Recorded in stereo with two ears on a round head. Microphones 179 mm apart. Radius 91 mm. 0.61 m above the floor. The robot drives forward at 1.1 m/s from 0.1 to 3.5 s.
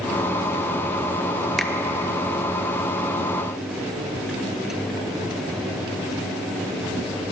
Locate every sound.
1.6 s a finger snap: centre (ahead or behind), 0.6 m